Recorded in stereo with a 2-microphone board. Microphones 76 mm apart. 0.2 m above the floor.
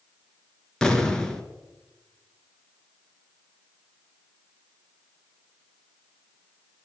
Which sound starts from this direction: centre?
An explosion, at 0.8 s.